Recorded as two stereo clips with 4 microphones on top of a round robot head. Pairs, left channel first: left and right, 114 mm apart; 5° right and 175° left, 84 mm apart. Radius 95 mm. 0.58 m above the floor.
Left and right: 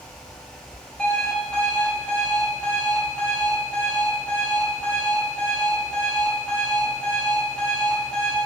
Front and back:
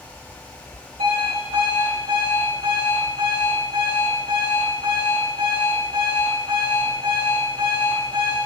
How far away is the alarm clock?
About 3 m.